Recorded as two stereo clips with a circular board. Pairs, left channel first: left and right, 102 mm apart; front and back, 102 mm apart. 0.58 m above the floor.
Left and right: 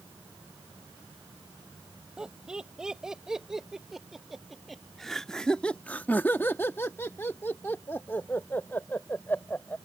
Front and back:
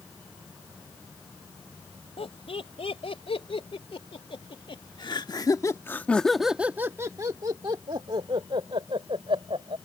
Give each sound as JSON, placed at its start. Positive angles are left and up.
{"t": 2.2, "sound": "laughter", "azimuth_deg": -10}